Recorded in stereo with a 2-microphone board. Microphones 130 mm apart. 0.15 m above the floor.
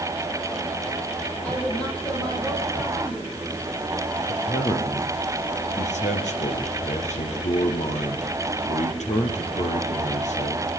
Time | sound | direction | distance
1.4 | a woman speaking | 10° left (ahead or behind) | 5.5 m
4.3 | a man speaking | 70° left (ahead or behind) | 4 m